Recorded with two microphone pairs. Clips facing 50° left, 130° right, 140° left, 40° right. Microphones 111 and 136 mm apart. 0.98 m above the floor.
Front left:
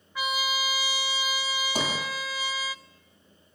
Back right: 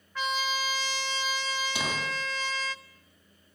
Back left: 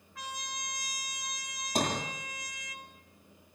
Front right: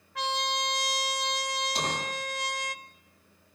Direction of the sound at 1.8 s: 100° left.